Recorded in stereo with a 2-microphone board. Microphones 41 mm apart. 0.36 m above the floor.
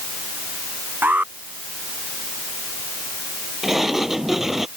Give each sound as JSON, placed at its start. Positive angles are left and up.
{"t": 1.0, "sound": "an alarm", "side_deg": -50}
{"t": 3.6, "sound": "a sliding door", "side_deg": -10}